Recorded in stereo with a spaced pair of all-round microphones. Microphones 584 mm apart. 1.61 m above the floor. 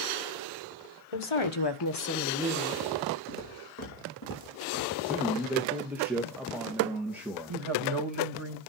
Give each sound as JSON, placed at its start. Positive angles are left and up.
{"t": 1.1, "sound": "a woman speaking", "side_deg": 65, "distance_m": 1.7}
{"t": 3.3, "sound": "footsteps", "side_deg": 25, "distance_m": 5.0}
{"t": 5.0, "sound": "a man speaking", "side_deg": -5, "distance_m": 1.7}
{"t": 7.5, "sound": "a woman speaking", "side_deg": -50, "distance_m": 2.5}